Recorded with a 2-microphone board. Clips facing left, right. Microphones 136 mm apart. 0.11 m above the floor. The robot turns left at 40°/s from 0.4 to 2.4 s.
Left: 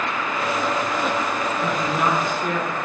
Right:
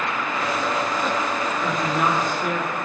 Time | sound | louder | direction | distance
1.6 | a woman speaking | even | 10° left (ahead or behind) | 1.3 m